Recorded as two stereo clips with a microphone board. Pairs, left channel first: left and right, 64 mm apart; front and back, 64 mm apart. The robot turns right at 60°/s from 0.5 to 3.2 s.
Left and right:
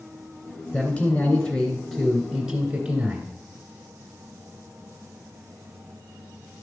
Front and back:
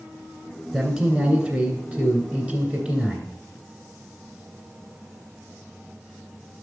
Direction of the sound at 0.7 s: 100° left.